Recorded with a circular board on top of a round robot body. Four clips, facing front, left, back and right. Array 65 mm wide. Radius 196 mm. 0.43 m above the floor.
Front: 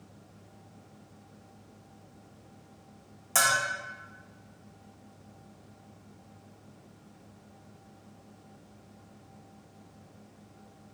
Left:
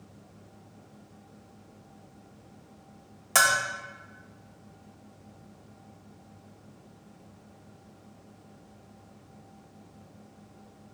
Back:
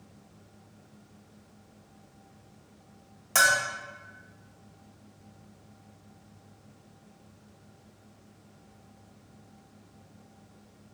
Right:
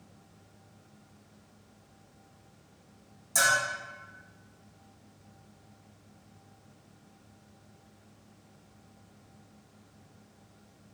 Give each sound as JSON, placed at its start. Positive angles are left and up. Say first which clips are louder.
{"t": 3.4, "sound": "a bell", "louder": "left 3 dB, back 4 dB", "azimuth_deg": 100, "distance_m": 0.7}